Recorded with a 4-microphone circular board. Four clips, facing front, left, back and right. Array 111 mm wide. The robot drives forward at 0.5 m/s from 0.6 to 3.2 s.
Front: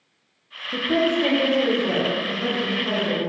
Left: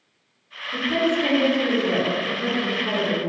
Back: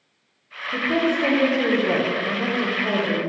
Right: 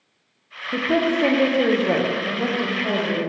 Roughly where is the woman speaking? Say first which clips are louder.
Right 2 dB, front 1 dB; right.